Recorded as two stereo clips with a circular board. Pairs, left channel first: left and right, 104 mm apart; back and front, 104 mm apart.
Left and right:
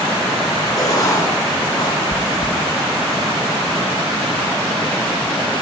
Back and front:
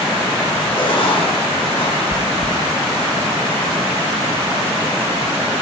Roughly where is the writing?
Behind left.